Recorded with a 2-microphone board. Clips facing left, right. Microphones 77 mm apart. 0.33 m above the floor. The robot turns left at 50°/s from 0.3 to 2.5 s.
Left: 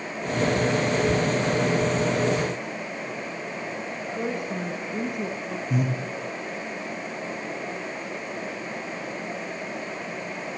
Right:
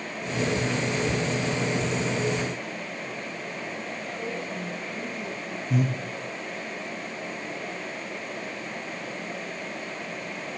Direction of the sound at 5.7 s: Centre (ahead or behind).